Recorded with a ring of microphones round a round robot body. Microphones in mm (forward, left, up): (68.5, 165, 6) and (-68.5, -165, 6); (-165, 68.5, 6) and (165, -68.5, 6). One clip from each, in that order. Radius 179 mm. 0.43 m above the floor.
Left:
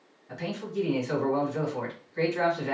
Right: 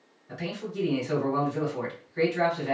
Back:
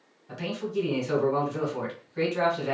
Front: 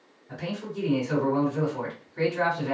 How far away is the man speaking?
About 2.0 m.